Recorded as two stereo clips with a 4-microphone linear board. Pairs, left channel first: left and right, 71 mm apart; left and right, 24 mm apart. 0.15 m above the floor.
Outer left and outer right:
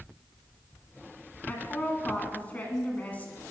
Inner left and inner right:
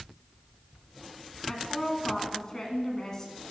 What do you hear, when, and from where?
1.5 s a woman speaking: 20° left (ahead or behind), 1.5 m